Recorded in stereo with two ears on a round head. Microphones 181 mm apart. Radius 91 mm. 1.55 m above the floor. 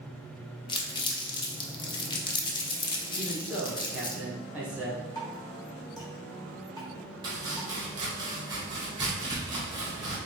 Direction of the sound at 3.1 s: 10° right (ahead or behind).